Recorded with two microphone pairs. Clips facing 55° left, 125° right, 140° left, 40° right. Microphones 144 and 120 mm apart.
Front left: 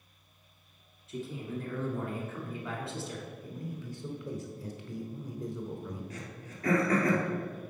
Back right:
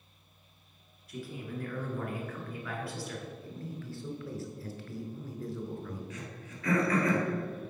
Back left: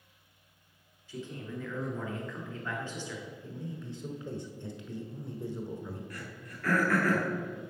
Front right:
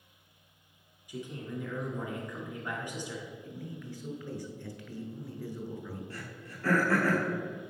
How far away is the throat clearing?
About 2.5 m.